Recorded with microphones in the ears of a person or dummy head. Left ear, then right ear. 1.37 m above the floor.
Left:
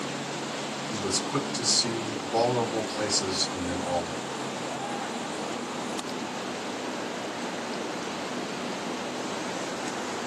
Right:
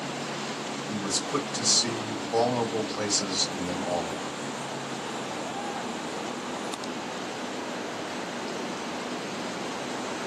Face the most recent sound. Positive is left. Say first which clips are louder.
# even
turn(degrees=-20)  # may be behind; listen again after turning